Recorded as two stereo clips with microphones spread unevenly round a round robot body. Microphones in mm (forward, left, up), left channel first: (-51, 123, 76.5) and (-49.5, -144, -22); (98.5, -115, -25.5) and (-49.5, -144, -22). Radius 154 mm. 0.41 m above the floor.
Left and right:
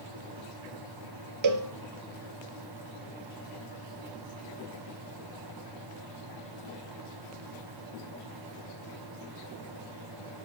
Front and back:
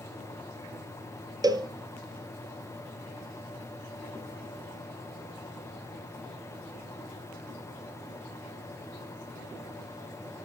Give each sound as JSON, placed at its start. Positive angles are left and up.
{"t": 1.4, "sound": "a cowbell", "azimuth_deg": -105, "distance_m": 2.0}